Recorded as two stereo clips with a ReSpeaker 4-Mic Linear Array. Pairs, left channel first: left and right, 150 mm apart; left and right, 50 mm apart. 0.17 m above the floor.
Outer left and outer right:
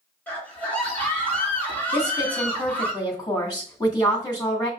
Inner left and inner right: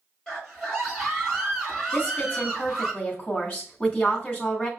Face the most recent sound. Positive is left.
turn(degrees=25)  # may be behind; listen again after turning